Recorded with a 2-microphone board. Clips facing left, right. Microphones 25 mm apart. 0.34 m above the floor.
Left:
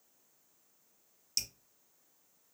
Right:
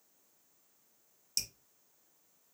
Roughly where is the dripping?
Centre.